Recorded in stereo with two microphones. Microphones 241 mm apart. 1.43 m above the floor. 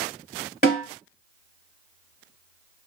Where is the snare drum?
35° left (ahead or behind), 1.5 m.